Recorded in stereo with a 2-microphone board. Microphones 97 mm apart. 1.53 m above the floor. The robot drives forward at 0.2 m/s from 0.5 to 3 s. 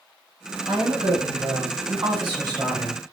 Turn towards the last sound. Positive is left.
turn(degrees=-45)  # may be behind; listen again after turning